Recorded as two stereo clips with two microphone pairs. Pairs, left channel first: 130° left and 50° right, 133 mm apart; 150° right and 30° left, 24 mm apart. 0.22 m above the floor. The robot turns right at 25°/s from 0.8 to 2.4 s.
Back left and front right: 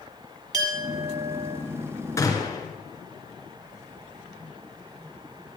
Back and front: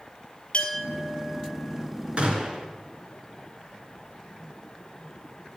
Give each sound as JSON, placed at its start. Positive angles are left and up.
{"t": 0.5, "sound": "a clink", "azimuth_deg": -115, "distance_m": 3.5}
{"t": 2.2, "sound": "a gunshot", "azimuth_deg": 65, "distance_m": 2.5}